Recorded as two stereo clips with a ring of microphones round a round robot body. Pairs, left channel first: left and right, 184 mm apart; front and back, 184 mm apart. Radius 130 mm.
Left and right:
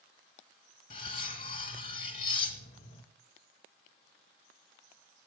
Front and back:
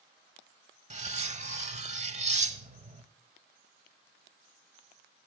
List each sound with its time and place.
0.9 s cutlery clinking: 135° left, 1.1 m